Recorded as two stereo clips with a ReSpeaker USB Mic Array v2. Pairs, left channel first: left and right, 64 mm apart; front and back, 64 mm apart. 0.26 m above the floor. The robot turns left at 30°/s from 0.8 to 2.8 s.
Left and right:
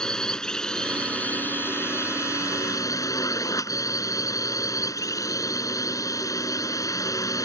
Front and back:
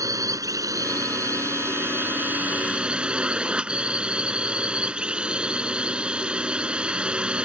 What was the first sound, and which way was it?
A drone, 170° left.